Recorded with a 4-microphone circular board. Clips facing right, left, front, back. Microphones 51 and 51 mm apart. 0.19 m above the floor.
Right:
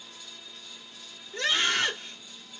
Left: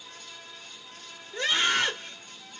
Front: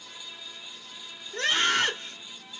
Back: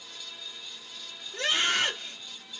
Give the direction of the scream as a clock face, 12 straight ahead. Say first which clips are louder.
Left 1 dB, front 2 dB; 11 o'clock.